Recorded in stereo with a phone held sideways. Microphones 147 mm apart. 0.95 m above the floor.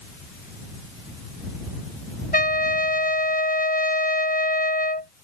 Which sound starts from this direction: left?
A trumpet, at 2.3 s.